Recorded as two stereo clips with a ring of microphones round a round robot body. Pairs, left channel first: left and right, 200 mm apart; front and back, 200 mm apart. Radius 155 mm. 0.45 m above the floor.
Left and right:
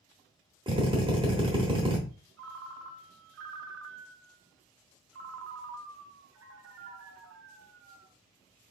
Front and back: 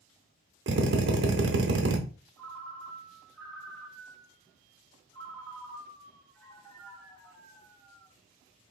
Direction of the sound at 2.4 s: 80° right.